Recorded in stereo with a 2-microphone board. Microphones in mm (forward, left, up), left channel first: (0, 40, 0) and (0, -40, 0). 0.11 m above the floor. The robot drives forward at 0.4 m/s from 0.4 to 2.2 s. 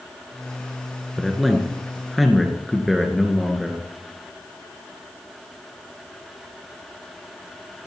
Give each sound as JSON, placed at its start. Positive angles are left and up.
{"t": 1.2, "sound": "a man speaking", "side_deg": 0, "distance_m": 1.7}